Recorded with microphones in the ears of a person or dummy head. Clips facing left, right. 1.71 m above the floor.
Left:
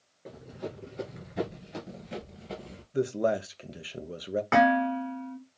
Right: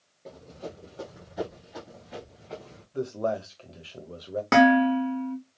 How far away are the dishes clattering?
About 2 m.